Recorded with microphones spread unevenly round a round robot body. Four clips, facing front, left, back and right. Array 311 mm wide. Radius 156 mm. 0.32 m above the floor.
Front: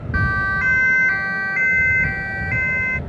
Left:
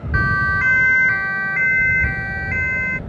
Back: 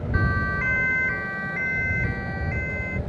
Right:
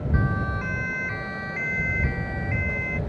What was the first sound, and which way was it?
A siren, 65° left.